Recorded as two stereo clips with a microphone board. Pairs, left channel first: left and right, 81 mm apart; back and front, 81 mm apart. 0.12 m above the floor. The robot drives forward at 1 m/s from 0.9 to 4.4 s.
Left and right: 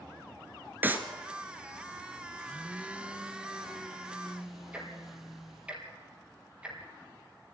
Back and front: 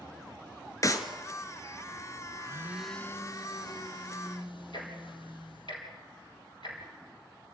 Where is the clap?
150° right, 1.6 m; by 1.1 s 155° right, 1.7 m.